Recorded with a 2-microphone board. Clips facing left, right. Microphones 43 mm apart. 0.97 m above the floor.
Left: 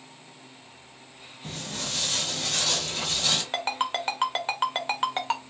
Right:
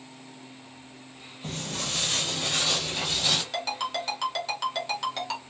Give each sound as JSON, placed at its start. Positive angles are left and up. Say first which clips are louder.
{"t": 1.4, "sound": "footsteps", "louder": "right 2 dB", "side_deg": -45, "distance_m": 1.3}
{"t": 3.5, "sound": "a ringtone", "louder": "left 2 dB", "side_deg": 40, "distance_m": 0.7}